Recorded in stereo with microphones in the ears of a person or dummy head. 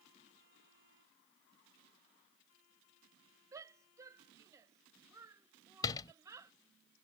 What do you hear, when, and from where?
3.5 s a shout: 15° right (ahead or behind)
5.8 s a door slam: 25° left (ahead or behind)